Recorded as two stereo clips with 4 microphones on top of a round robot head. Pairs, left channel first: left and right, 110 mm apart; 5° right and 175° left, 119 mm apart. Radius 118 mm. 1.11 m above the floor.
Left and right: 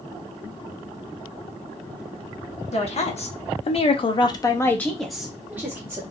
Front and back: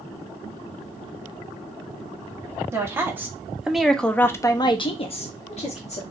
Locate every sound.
2.7 s a woman speaking: 110° left, 1.2 m; by 6.0 s 25° right, 1.0 m